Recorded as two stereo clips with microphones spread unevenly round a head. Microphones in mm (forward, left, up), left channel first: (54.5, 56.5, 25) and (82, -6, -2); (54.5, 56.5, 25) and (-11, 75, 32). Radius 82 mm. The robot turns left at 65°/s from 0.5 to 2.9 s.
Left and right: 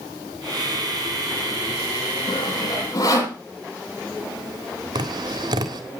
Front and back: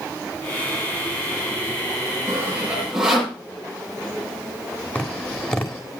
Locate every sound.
2.3 s sawing: 125° left, 10 m; by 3.4 s 85° left, 10 m
5.0 s tapping: 95° right, 1.6 m